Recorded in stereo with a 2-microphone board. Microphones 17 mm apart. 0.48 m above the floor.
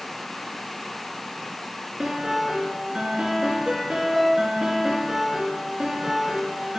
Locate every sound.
2.0 s a piano: 50° right (ahead or behind), 2 m